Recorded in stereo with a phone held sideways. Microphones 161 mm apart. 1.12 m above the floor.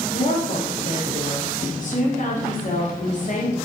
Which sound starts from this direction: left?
A woman speaking, at 0.1 s.